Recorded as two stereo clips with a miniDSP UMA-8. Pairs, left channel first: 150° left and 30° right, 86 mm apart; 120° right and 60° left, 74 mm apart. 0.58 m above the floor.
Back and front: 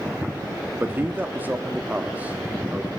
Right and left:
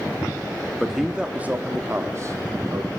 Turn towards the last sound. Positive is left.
turn(degrees=40)